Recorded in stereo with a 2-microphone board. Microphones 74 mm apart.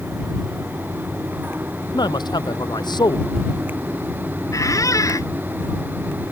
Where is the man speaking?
70° left (ahead or behind).